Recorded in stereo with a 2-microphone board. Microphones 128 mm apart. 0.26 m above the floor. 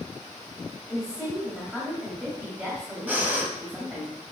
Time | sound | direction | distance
0.9 | a woman speaking | 10° right (ahead or behind) | 1.0 m
3.1 | breathing | 15° right (ahead or behind) | 0.7 m